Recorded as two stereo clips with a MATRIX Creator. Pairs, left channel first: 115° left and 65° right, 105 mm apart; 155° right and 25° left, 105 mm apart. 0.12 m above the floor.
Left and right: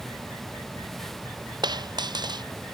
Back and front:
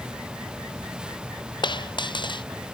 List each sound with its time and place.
1.6 s a dropped coin: 115° right